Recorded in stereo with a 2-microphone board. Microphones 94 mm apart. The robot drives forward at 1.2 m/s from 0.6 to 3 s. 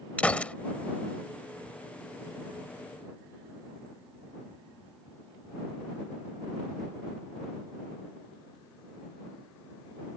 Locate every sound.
0.2 s a gunshot: 15° left (ahead or behind)